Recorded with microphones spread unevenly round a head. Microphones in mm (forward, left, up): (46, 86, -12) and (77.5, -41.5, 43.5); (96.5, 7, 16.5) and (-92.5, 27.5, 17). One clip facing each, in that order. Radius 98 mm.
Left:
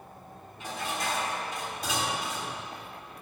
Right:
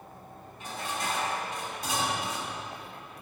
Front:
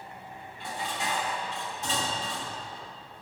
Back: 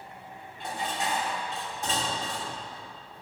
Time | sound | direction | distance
0.6 | dishes clattering | 125° left | 2.5 m